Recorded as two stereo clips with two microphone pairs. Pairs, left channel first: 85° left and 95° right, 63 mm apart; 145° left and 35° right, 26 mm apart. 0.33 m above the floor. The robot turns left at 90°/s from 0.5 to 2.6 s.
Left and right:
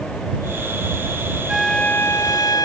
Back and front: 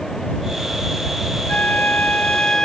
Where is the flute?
Straight behind; by 2.6 s 80° left.